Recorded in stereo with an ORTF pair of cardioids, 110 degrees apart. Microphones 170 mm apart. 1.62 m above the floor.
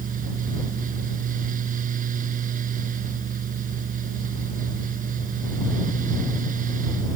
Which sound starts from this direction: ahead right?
A fan, at 0.0 s.